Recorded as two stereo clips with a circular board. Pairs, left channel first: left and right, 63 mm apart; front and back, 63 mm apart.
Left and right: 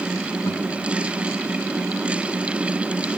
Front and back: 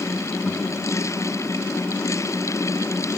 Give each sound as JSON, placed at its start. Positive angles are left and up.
{"t": 0.5, "sound": "a guitar", "azimuth_deg": 55, "distance_m": 2.0}